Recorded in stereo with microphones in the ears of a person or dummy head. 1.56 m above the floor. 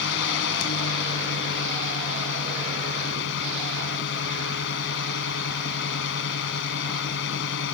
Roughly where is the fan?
Left.